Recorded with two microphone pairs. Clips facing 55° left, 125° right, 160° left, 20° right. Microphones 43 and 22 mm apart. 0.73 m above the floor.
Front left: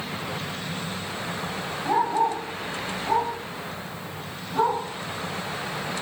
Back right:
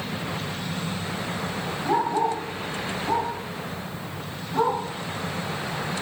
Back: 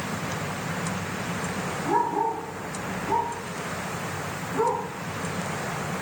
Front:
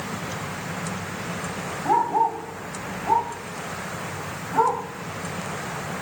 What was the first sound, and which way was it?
A dog barking, 40° right.